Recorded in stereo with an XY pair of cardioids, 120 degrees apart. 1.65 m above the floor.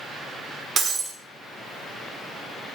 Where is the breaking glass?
40° right, 3 m.